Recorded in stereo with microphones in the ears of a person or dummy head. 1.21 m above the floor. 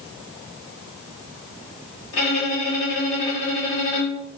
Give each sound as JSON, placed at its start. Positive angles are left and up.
{"t": 2.1, "sound": "a violin", "side_deg": 70, "distance_m": 2.5}